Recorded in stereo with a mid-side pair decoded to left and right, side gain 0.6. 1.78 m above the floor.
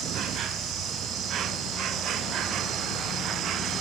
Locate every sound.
0.0 s an insect: 55° right, 0.7 m